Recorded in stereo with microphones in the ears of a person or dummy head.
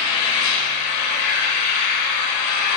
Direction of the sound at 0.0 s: 60° left (ahead or behind).